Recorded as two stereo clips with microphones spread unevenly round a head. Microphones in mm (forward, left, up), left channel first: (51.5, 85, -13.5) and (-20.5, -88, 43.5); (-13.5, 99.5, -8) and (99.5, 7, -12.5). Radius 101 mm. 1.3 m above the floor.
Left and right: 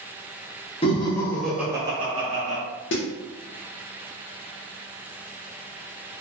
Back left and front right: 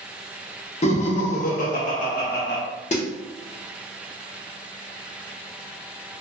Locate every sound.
0.8 s laughter: 105° left, 0.7 m; by 2.6 s 170° right, 1.0 m
2.9 s a snare drum: 105° left, 0.7 m